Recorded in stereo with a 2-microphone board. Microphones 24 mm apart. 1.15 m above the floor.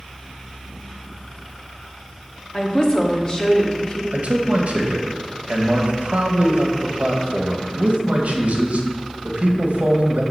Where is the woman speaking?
30° left (ahead or behind), 1.0 m.